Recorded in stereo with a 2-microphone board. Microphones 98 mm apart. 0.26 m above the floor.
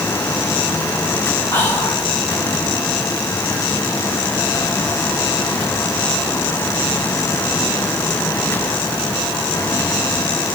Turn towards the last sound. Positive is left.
turn(degrees=30)  # may be behind; listen again after turning